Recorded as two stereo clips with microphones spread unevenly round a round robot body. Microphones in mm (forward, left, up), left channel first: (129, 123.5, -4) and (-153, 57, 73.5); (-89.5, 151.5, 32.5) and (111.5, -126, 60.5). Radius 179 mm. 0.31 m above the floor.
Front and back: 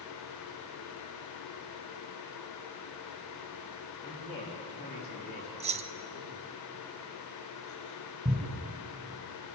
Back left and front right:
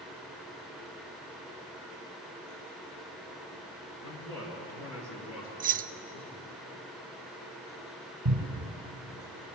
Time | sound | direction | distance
4.0 | a man speaking | 85° left | 5.5 m
5.6 | keys jangling | 90° right | 0.6 m
8.2 | a cupboard door | 100° right | 3 m